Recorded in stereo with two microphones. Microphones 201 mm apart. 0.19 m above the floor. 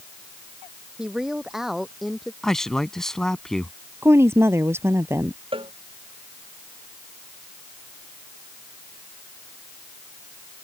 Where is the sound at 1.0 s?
5° right (ahead or behind); by 2.3 s centre (ahead or behind).